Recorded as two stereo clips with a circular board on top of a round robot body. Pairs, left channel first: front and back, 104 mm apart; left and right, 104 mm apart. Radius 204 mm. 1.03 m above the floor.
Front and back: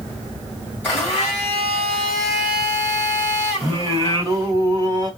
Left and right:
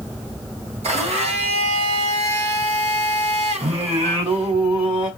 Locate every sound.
0.8 s a blender: 75° right, 1.8 m
3.6 s singing: 125° right, 1.1 m